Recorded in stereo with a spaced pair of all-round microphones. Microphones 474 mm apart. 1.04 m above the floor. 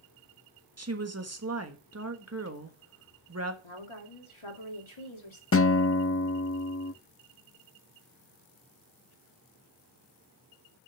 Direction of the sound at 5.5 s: 30° left (ahead or behind).